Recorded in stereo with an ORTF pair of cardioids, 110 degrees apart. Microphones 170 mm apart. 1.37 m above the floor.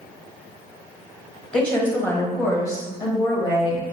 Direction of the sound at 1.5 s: 5° left.